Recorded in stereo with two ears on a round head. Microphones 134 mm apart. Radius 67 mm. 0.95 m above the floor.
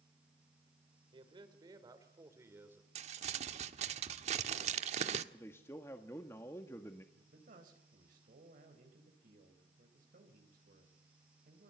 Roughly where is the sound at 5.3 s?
Centre.